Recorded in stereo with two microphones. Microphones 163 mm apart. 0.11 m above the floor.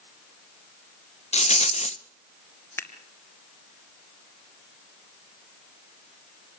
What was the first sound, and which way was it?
A rattle, 45° left (ahead or behind).